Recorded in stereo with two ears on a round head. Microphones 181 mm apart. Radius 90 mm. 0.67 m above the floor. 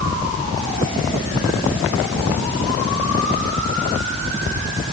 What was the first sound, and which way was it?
Only background noise.